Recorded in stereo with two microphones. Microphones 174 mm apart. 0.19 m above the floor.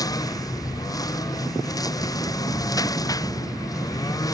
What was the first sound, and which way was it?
A lawn mower, 20° left (ahead or behind).